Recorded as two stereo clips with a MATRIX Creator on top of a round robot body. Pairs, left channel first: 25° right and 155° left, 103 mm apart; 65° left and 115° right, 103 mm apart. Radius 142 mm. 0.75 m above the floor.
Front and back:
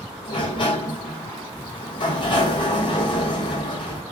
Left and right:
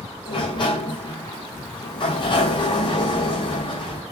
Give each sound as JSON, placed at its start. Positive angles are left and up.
{"t": 0.2, "sound": "a sliding door", "azimuth_deg": 25, "distance_m": 3.5}